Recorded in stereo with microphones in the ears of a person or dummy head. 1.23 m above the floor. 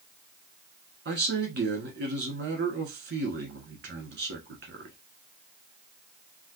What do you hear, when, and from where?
1.1 s a man speaking: 45° right (ahead or behind), 1.2 m